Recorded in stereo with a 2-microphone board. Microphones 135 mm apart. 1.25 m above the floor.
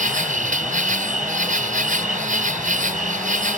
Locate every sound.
0.0 s an insect: 80° right